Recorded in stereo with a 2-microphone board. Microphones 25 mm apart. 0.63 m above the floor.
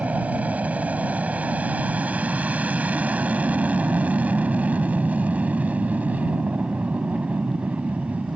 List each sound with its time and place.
0.0 s an aircraft: 70° right (ahead or behind); by 8.4 s 75° right (ahead or behind)